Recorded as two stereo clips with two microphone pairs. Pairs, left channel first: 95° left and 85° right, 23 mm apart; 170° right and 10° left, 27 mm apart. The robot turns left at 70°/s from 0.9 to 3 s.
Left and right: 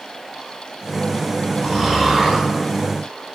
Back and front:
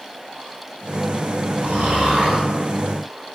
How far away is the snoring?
About 0.8 m.